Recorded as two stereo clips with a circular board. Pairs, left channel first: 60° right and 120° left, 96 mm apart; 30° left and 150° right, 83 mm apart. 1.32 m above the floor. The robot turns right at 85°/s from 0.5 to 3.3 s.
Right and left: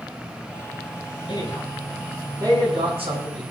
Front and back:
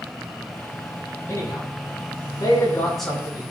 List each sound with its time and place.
1.3 s a man speaking: 30° right, 9.5 m; by 3.4 s 145° left, 9.5 m